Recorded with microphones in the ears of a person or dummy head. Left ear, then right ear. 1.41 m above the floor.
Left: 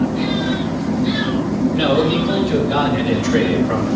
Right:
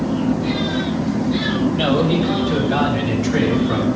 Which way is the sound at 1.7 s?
30° left (ahead or behind).